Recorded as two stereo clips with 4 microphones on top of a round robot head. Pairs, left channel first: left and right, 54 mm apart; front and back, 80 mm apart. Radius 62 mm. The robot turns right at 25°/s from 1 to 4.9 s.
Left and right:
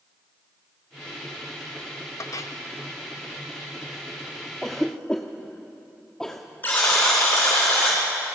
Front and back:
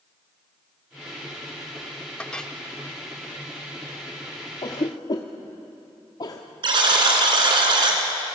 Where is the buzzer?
155° left, 3.5 m.